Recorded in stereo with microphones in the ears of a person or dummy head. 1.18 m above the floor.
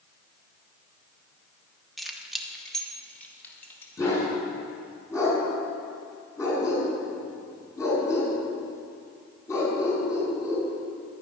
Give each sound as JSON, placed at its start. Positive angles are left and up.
{"t": 2.0, "sound": "keys jangling", "side_deg": 0, "distance_m": 1.2}
{"t": 4.0, "sound": "a dog barking", "side_deg": 30, "distance_m": 5.5}